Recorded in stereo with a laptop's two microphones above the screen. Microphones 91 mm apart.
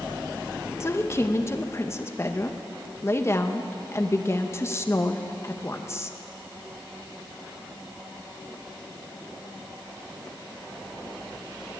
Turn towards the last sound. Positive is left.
turn(degrees=30)  # may be behind; listen again after turning